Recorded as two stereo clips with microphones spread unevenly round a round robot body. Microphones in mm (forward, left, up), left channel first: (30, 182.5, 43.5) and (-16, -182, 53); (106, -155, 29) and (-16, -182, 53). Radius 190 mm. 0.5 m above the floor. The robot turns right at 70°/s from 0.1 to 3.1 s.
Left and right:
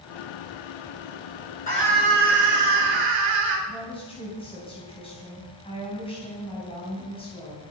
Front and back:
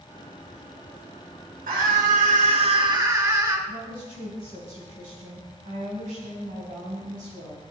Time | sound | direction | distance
1.7 | a scream | 150° left | 8 m
3.7 | a woman speaking | 160° left | 4 m